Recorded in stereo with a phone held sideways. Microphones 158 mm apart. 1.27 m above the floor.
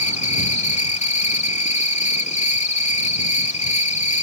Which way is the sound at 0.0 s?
45° left (ahead or behind).